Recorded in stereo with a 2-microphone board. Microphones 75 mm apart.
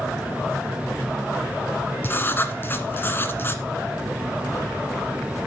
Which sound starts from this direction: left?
Writing, at 2.0 s.